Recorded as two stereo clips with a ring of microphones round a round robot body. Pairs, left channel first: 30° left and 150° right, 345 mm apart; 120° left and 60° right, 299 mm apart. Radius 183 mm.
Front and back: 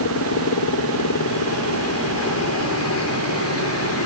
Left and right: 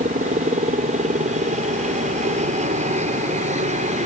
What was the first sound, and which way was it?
A helicopter, straight ahead.